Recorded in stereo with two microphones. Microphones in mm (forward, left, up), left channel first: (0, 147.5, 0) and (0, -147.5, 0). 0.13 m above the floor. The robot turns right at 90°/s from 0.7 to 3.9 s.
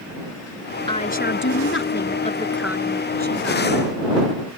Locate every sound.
0.9 s a woman speaking: 20° left; by 3.9 s 70° right